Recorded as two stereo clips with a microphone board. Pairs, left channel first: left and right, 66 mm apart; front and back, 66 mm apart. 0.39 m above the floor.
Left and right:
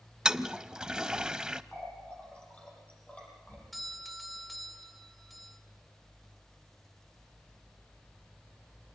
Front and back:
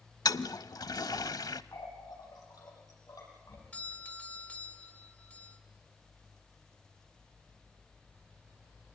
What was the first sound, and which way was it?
A toilet flushing, 10° right.